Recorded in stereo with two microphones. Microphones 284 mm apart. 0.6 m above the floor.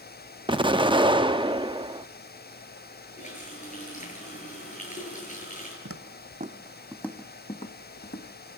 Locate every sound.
0.5 s an explosion: 15° right (ahead or behind), 0.7 m
3.2 s a running tap: 25° left (ahead or behind), 8.5 m
5.8 s footsteps: 55° right (ahead or behind), 1.7 m; by 8.3 s 40° left (ahead or behind), 2.5 m